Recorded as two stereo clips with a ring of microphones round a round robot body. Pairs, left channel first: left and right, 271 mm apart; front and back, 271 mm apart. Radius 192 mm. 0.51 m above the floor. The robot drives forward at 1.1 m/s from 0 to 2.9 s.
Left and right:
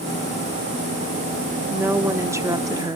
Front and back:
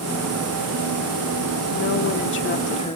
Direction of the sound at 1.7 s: 10° right.